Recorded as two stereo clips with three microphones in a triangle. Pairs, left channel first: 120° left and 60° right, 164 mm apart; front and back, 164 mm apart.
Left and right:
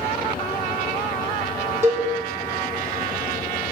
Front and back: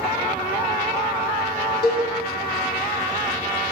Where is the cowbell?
15° left, 1.4 m.